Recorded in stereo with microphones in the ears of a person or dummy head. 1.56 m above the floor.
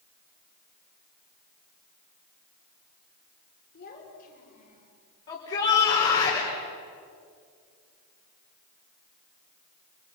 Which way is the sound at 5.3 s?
35° left (ahead or behind).